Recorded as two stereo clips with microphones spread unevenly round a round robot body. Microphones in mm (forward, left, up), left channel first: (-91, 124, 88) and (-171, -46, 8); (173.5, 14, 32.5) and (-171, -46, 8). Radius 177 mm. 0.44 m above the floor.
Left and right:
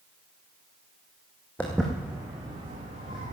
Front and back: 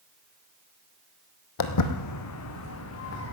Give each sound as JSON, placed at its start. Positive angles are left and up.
{"t": 1.6, "sound": "footsteps", "azimuth_deg": -10, "distance_m": 1.3}